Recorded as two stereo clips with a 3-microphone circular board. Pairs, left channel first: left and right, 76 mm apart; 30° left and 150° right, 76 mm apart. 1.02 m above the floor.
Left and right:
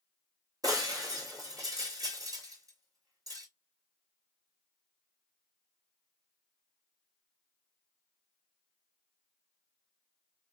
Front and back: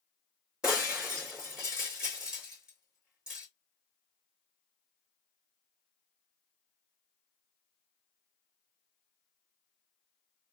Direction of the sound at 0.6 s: 70° right.